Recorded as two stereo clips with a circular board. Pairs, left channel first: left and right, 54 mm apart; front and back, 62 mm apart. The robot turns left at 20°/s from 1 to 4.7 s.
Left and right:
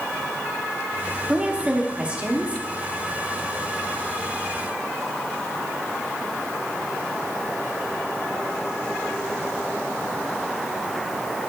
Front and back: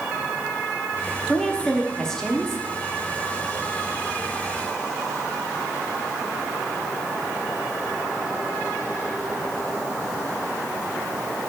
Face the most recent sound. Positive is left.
turn(degrees=-120)